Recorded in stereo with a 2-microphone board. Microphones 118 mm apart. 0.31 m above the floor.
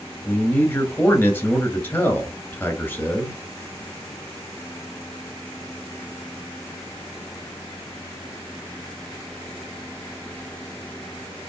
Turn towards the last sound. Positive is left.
turn(degrees=15)  # may be behind; listen again after turning